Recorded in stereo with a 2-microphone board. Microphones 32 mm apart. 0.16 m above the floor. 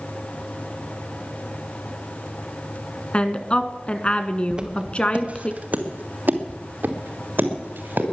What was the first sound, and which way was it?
A woman speaking, 35° left (ahead or behind).